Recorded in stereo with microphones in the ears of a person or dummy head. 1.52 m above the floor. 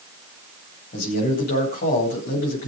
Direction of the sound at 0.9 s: 60° left (ahead or behind).